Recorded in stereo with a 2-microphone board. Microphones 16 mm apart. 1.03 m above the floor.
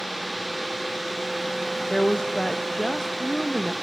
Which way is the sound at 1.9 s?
60° left (ahead or behind).